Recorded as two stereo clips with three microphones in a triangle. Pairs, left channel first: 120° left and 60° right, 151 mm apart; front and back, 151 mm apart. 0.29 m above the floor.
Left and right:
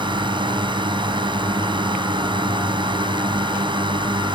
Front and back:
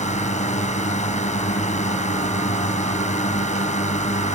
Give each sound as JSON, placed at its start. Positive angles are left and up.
{"t": 0.0, "sound": "a drone", "azimuth_deg": -10}